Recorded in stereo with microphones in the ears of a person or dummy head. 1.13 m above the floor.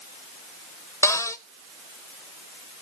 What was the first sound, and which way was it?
A cupboard door, 15° left (ahead or behind).